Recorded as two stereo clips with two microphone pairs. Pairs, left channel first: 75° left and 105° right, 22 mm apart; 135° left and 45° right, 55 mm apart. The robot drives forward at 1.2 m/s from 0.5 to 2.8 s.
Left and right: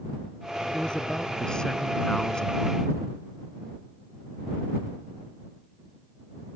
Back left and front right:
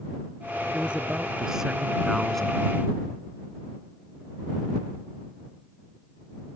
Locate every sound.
0.7 s a man speaking: 25° left; by 2.6 s 65° left